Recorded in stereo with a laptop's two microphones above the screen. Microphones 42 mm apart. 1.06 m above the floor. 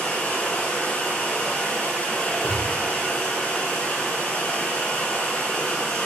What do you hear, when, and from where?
0.0 s running water: 70° left (ahead or behind), 1.5 m
2.4 s a gunshot: 85° left, 1.4 m